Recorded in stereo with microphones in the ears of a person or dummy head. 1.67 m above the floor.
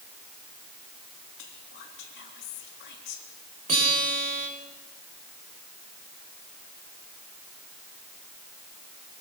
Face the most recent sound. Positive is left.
turn(degrees=-40)  # may be behind; listen again after turning